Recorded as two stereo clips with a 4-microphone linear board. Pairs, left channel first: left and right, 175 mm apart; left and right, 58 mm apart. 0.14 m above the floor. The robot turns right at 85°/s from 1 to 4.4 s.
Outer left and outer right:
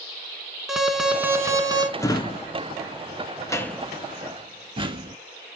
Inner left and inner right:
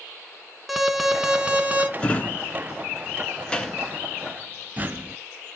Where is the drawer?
15° left (ahead or behind), 0.6 m; by 5.2 s 30° right (ahead or behind), 0.6 m.